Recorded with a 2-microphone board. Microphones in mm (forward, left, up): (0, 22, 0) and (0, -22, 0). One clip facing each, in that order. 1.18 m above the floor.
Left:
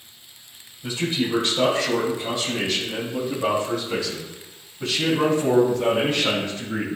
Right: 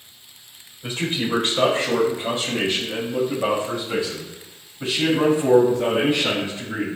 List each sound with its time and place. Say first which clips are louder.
0.8 s a man speaking: even; 45° right (ahead or behind), 4.5 m; by 6.9 s 20° right (ahead or behind), 7 m